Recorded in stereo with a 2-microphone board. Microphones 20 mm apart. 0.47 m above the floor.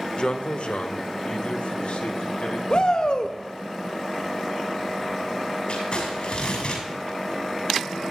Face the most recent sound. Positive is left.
turn(degrees=50)  # may be behind; listen again after turning